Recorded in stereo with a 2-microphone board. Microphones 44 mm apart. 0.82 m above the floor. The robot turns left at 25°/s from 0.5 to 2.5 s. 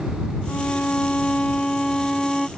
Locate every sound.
0.5 s a violin: 60° left; by 2.5 s 10° left